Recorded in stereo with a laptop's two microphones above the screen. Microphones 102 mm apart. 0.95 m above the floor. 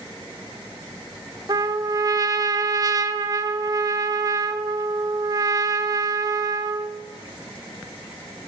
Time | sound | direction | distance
1.5 | a trumpet | 35° right (ahead or behind) | 0.6 m